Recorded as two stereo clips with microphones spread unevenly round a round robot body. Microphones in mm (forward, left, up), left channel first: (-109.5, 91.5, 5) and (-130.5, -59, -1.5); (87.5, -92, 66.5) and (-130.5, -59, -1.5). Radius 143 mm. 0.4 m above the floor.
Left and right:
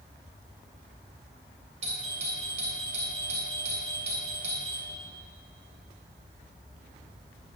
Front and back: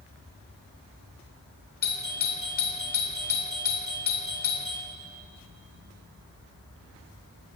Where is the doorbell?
60° right, 2.5 m.